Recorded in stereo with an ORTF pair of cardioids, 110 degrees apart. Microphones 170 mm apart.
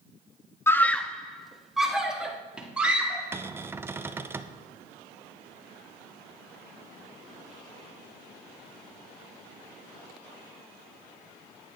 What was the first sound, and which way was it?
A scream, 15° left.